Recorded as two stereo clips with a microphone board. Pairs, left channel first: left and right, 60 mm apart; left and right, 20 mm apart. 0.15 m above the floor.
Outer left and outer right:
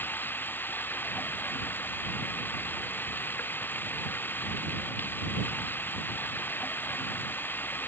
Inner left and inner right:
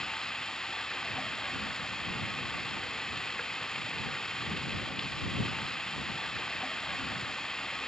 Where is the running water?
35° left (ahead or behind).